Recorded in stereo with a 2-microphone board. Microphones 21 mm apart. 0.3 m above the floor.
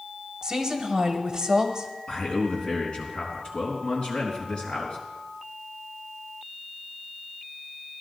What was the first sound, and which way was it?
A woman speaking, 25° right (ahead or behind).